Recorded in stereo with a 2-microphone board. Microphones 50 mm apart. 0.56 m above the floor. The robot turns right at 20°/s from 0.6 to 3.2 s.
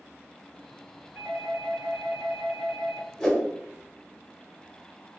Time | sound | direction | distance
1.1 | a doorbell | 85° right | 1.6 m
3.2 | a whoosh | 15° left (ahead or behind) | 1.0 m